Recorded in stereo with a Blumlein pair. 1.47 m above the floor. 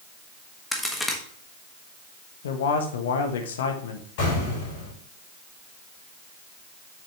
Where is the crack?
5° left, 1.4 m.